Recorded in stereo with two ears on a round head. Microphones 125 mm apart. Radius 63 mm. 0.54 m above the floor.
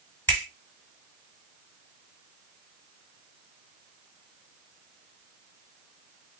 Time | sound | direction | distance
0.3 | a finger snap | 15° left (ahead or behind) | 2 m